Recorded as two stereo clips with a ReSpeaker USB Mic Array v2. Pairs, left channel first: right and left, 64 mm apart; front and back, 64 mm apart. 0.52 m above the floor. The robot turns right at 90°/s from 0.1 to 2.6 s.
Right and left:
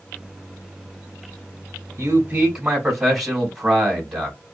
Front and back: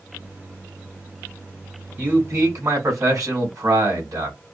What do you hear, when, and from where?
2.0 s a man speaking: 115° left, 3 m; by 4.4 s 170° left, 3 m